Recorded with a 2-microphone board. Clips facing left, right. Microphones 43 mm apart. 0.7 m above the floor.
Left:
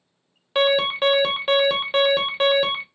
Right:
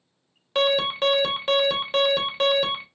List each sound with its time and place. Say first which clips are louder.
0.6 s an alarm: left 3 dB; 10° left (ahead or behind), 0.8 m